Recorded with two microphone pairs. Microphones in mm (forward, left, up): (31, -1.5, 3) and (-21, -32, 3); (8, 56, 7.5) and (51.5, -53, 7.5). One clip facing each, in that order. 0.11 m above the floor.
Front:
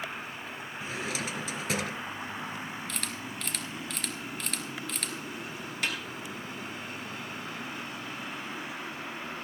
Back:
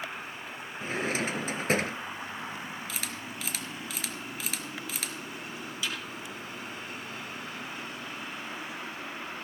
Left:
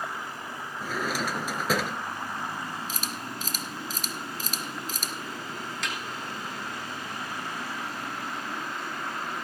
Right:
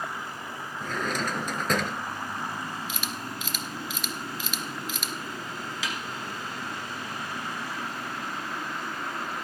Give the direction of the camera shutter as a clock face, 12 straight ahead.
8 o'clock.